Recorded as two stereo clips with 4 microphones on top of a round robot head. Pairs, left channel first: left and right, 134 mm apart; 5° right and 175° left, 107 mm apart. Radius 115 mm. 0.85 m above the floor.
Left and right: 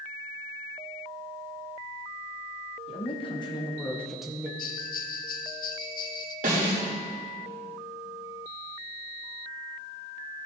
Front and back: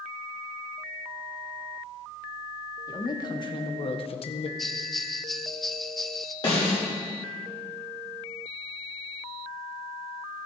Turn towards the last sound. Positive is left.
turn(degrees=-60)